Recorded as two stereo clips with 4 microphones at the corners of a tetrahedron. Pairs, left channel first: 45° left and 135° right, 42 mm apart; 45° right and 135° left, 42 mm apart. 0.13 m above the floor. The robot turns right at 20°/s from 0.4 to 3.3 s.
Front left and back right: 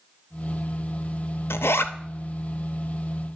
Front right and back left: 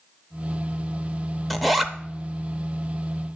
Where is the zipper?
40° left, 0.5 m; by 1.9 s 50° left, 0.5 m.